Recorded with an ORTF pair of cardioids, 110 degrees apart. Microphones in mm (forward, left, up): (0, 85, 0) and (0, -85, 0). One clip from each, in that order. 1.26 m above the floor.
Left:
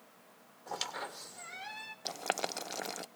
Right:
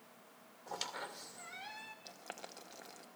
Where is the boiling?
60° left, 0.6 m.